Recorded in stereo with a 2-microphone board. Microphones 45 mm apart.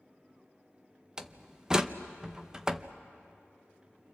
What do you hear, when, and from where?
1.2 s a door slam: 15° right (ahead or behind), 0.7 m